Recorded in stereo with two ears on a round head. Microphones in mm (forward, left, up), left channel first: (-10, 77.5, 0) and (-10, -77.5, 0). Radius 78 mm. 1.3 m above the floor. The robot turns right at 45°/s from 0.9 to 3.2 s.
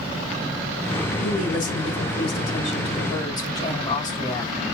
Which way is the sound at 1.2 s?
65° left.